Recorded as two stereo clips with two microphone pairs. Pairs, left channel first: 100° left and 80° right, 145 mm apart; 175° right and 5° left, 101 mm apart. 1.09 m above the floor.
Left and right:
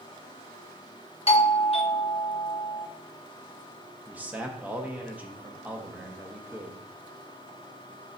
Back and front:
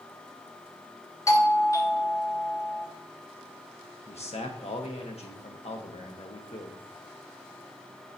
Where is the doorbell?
135° left, 0.8 m.